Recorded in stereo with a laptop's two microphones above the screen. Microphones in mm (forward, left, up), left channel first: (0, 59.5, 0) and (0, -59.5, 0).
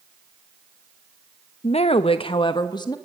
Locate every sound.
1.6 s a woman speaking: 60° left (ahead or behind), 0.8 m; by 3.0 s 35° left (ahead or behind), 1.3 m